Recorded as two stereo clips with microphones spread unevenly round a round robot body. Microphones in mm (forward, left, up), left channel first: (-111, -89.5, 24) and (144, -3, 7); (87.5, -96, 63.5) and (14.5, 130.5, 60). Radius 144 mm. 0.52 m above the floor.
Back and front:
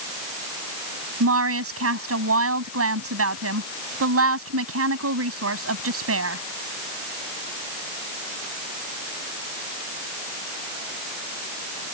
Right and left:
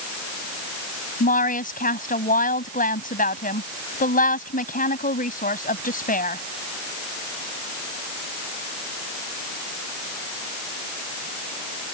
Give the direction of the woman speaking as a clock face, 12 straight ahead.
1 o'clock.